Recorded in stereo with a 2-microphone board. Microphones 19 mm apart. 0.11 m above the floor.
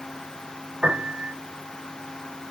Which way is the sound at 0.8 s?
75° right (ahead or behind).